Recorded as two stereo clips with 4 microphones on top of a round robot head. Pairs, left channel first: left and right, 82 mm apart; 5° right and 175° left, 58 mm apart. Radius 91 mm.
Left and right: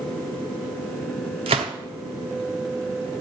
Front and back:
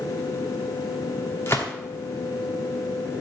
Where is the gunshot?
75° right, 0.8 m.